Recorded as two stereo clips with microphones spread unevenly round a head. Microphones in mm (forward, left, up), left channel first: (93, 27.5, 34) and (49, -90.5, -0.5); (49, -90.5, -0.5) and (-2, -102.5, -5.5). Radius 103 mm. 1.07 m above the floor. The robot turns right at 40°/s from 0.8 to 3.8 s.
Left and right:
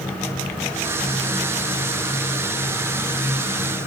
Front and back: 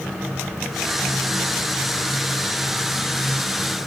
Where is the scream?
No scream in this recording.